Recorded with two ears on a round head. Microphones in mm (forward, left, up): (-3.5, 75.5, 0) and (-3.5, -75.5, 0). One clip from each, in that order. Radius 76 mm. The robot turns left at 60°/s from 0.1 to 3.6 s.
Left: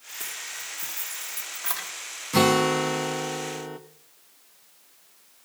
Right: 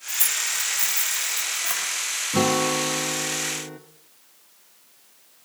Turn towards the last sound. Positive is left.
turn(degrees=55)